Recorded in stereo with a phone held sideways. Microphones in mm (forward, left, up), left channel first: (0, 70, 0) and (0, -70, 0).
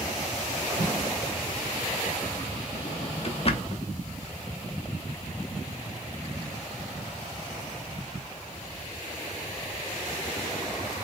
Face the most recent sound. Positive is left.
turn(degrees=45)  # may be behind; listen again after turning